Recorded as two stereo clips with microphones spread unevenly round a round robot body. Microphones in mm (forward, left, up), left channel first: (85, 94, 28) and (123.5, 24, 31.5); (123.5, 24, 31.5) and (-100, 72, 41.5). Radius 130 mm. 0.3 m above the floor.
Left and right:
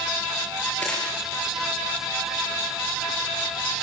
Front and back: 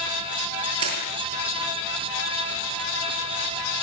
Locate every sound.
0.8 s crushing: 160° right, 8 m